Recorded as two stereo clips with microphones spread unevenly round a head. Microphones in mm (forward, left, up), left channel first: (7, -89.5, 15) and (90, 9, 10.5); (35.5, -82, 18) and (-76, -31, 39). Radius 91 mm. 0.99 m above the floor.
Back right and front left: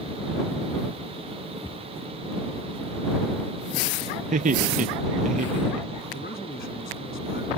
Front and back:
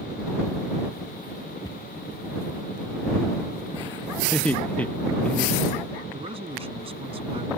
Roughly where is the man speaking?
Behind.